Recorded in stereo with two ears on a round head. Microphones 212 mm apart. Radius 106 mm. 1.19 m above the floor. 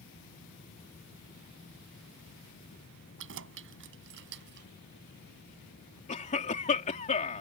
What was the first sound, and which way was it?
Keys jangling, 60° right (ahead or behind).